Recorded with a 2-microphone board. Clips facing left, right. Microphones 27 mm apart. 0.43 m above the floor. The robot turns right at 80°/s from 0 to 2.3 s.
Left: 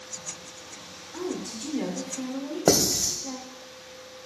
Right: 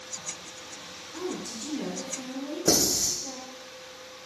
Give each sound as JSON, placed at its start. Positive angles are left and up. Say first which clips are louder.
{"t": 1.1, "sound": "a woman speaking", "louder": "left 2 dB", "side_deg": 20, "distance_m": 0.7}
{"t": 2.7, "sound": "writing", "louder": "left 2 dB", "side_deg": 75, "distance_m": 1.0}